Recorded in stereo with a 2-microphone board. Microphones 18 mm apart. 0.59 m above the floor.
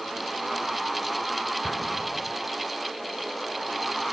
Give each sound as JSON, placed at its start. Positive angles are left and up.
{"t": 1.6, "sound": "an explosion", "side_deg": 10, "distance_m": 0.5}